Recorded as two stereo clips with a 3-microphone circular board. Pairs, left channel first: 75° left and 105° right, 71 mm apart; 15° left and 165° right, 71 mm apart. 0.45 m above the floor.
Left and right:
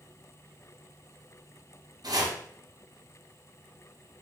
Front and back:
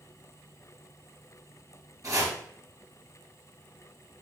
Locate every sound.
2.0 s chopping: 130° right, 5.5 m